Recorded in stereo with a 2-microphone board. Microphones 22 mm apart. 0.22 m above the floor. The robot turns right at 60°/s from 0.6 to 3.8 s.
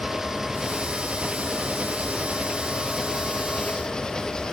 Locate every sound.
0.0 s an engine running: 160° right; by 4.5 s 35° left